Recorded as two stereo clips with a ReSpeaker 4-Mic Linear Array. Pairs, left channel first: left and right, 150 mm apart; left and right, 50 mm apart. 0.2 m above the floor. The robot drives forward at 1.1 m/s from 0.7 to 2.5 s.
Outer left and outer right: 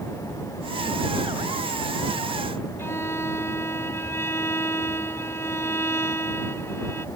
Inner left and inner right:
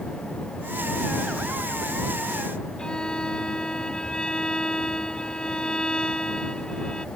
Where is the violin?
15° left (ahead or behind).